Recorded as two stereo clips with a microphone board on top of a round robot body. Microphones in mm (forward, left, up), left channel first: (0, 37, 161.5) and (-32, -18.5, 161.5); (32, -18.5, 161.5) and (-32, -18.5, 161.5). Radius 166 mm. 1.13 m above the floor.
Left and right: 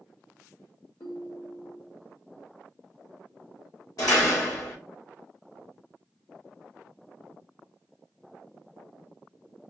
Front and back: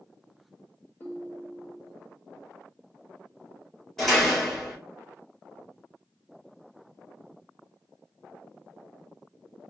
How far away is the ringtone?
About 2.5 m.